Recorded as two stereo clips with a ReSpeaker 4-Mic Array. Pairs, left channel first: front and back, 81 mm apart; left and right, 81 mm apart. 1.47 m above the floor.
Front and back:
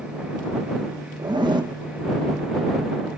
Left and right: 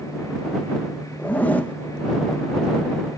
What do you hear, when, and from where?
1.2 s a zipper: 160° left